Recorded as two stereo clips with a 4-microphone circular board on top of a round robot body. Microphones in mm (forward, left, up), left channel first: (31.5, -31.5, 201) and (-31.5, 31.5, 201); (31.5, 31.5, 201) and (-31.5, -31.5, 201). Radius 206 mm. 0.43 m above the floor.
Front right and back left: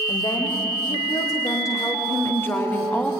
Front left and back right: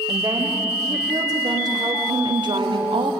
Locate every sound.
0.1 s a woman speaking: 80° right, 3 m; by 3.1 s 120° right, 2 m